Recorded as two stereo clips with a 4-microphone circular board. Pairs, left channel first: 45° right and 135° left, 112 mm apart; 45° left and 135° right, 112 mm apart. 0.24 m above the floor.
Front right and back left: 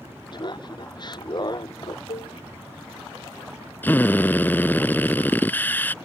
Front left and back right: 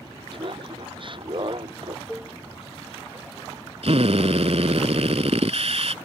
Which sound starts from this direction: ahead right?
Dishes clattering, at 2.1 s.